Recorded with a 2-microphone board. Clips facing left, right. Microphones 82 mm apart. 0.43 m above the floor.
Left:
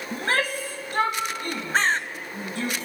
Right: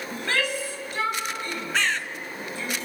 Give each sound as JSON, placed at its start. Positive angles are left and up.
{"t": 0.1, "sound": "a shout", "side_deg": 35, "distance_m": 3.5}
{"t": 1.7, "sound": "a bird", "side_deg": 40, "distance_m": 0.6}